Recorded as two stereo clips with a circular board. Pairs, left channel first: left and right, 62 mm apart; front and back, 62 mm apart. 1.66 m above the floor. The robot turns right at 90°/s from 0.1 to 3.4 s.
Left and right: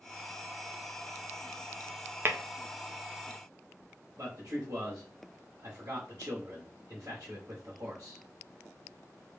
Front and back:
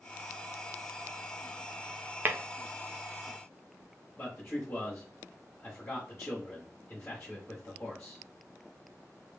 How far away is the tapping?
About 0.6 m.